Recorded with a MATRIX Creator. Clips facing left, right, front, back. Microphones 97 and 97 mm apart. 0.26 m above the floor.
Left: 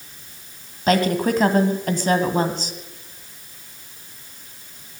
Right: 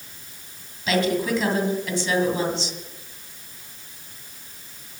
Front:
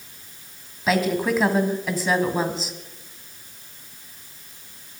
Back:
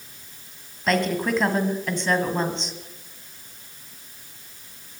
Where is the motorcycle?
I don't hear a motorcycle.